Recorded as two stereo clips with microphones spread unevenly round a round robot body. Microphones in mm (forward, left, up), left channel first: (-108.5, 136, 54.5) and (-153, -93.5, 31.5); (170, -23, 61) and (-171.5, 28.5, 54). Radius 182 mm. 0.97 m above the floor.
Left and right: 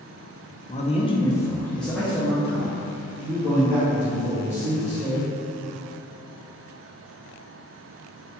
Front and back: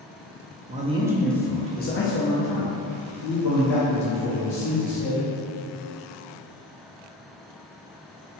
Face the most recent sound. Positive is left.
turn(degrees=-35)